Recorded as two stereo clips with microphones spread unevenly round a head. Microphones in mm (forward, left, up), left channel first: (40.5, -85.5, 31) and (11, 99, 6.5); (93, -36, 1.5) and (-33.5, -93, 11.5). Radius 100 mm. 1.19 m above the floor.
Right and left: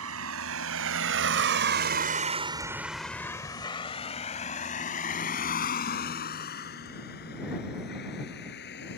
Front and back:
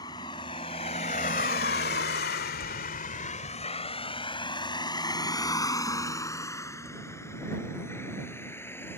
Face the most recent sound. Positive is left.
turn(degrees=-50)